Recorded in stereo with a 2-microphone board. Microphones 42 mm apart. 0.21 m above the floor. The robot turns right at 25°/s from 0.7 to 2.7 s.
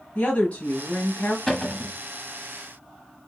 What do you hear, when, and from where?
0.1 s a woman speaking: 30° left (ahead or behind), 1.1 m
1.5 s a cupboard door: 10° left (ahead or behind), 1.0 m; by 2.0 s 15° left (ahead or behind), 1.0 m